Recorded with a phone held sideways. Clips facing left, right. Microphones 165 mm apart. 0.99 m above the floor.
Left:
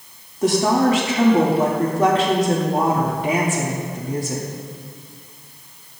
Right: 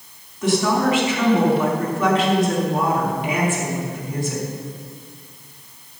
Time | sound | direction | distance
0.4 | a woman speaking | 40° left (ahead or behind) | 3 m